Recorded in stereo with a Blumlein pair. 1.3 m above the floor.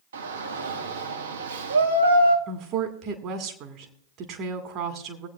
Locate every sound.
0.1 s a shout: 65° right, 1.8 m
2.5 s a woman speaking: 35° right, 2.0 m